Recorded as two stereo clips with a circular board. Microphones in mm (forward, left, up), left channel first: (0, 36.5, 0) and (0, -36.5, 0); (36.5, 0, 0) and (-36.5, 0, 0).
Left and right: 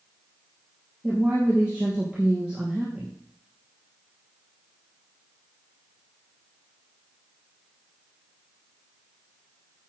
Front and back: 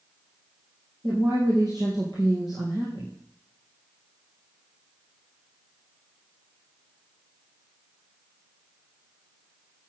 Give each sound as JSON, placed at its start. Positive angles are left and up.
{"t": 1.0, "sound": "a woman speaking", "azimuth_deg": -160, "distance_m": 3.5}